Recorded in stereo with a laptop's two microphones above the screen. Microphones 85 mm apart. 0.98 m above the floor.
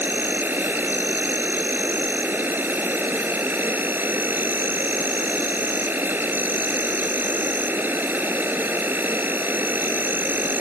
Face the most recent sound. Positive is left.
turn(degrees=-25)  # may be behind; listen again after turning